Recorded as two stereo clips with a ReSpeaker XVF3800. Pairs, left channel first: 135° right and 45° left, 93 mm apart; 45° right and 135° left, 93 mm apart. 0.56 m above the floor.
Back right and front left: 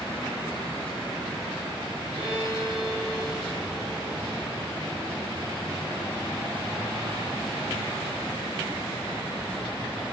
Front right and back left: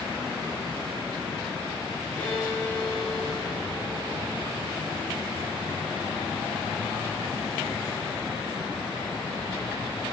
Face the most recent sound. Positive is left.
turn(degrees=25)